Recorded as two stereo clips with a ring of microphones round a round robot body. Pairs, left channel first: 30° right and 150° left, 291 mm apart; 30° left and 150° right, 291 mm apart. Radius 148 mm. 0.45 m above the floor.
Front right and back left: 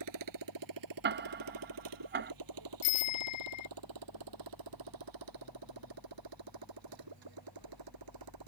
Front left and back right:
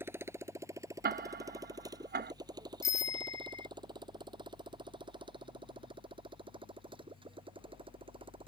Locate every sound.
0.0 s a motorcycle: 125° left; by 8.5 s 135° left
1.0 s ticking: 175° left
2.8 s a bicycle bell: 50° right